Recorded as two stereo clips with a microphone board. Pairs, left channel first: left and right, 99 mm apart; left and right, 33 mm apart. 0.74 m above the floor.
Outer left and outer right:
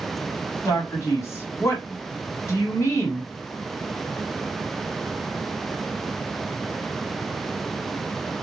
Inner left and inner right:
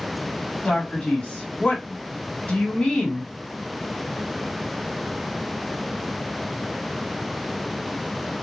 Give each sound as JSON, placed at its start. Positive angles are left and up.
{"t": 0.7, "sound": "a man speaking", "side_deg": 30, "distance_m": 1.4}